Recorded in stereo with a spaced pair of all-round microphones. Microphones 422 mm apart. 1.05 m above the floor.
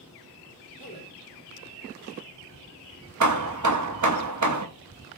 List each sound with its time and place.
0.8 s a man speaking: 55° left (ahead or behind), 2.5 m
3.2 s hammering: 50° right (ahead or behind), 0.6 m